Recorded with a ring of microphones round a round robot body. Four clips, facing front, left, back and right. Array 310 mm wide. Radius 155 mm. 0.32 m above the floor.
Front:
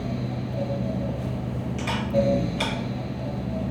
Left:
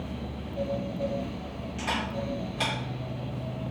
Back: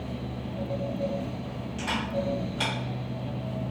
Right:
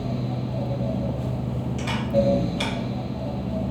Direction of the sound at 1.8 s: 50° right.